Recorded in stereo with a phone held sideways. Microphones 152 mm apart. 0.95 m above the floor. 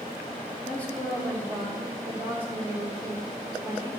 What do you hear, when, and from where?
0.7 s a woman speaking: 10° left (ahead or behind), 1.9 m; by 3.9 s 30° right (ahead or behind), 2.5 m